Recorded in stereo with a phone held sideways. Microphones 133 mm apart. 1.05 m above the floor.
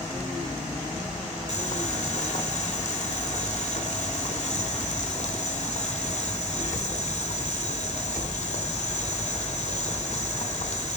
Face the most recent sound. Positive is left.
turn(degrees=60)  # may be behind; listen again after turning